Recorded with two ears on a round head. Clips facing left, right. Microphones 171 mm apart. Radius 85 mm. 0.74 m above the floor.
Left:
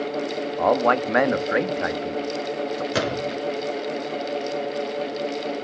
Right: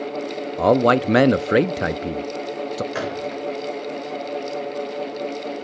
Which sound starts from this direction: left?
A gunshot, at 2.9 s.